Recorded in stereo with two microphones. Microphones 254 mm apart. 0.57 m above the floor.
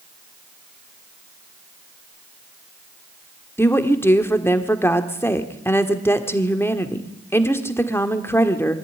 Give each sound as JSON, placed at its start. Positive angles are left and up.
{"t": 3.6, "sound": "a woman speaking", "side_deg": 10, "distance_m": 1.6}